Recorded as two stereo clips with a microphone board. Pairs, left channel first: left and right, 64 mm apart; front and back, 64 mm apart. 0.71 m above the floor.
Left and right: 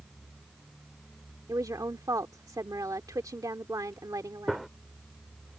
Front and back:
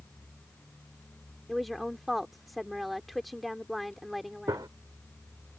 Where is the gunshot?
Straight behind.